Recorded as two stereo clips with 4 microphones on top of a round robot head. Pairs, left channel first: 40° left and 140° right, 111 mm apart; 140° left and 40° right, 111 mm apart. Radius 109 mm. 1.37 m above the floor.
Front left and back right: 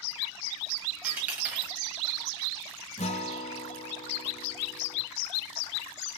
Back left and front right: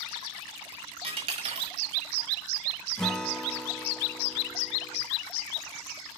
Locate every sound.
1.0 s a dropped coin: 65° right, 1.4 m
3.0 s a guitar: 55° left, 1.2 m